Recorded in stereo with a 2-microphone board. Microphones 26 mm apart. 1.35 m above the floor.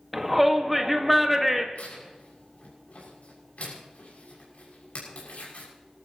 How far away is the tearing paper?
About 6.5 m.